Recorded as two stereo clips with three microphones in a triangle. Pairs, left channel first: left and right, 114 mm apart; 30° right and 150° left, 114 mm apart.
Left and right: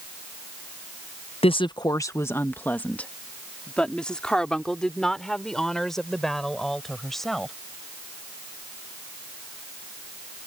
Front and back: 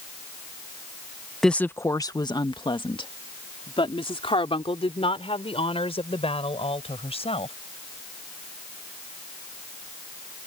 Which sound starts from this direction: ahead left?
A woman speaking, at 1.4 s.